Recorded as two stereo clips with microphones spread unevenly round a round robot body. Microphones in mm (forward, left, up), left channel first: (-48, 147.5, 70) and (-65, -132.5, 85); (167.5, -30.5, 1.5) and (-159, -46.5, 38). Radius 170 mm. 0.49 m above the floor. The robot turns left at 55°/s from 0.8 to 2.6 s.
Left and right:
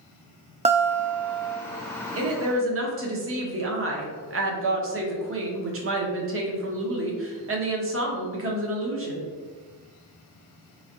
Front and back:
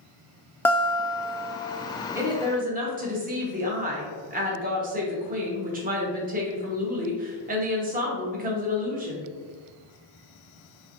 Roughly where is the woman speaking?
Right.